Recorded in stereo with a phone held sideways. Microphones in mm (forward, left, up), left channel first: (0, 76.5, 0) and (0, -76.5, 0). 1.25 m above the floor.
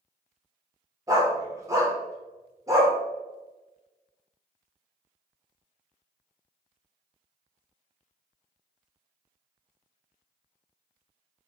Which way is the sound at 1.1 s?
20° right (ahead or behind).